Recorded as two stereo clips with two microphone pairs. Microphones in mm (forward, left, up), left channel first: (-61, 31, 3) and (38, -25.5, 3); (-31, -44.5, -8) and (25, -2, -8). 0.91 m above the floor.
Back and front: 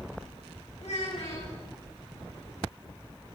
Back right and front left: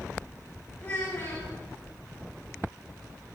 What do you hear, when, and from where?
0.8 s a child speaking: 155° left, 6 m